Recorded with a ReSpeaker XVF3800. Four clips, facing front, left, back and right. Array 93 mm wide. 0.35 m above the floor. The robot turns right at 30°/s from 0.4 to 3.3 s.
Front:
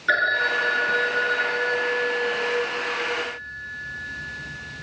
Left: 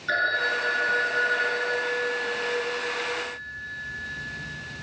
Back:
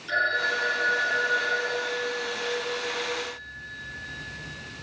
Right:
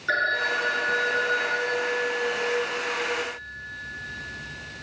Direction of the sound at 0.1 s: 5° right.